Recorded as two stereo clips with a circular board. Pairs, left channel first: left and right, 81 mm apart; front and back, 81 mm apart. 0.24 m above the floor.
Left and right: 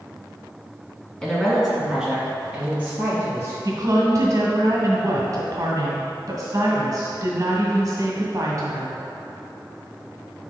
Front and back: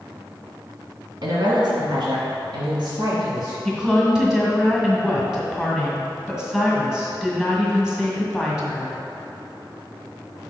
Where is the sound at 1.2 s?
170° left, 1.7 m; by 3.5 s 155° right, 4 m.